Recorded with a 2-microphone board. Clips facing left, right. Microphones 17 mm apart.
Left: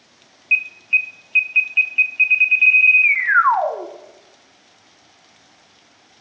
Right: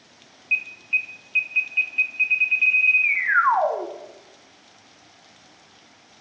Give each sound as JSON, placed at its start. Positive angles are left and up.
{"t": 0.5, "sound": "an alarm", "side_deg": 30, "distance_m": 0.9}